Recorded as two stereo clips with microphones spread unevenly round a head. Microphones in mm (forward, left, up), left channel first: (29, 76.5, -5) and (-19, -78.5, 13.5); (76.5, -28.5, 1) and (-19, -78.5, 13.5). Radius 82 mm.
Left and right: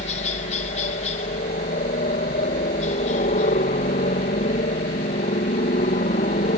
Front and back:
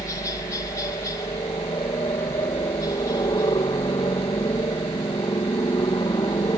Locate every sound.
0.0 s a helicopter: 75° left